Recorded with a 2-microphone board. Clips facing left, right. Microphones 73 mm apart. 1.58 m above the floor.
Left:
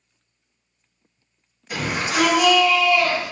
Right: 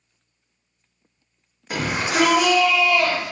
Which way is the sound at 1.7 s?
45° right (ahead or behind).